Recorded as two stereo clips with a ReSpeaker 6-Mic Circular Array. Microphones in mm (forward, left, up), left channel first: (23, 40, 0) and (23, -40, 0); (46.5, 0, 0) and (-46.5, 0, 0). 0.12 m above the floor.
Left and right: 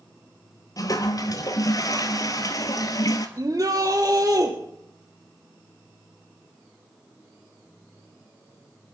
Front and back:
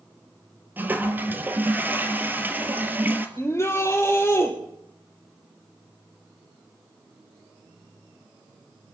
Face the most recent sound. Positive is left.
turn(degrees=-55)